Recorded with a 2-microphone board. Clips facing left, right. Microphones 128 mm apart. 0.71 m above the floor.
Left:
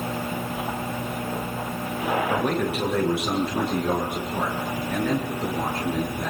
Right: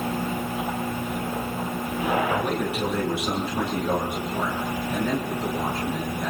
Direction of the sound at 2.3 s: 70° left (ahead or behind).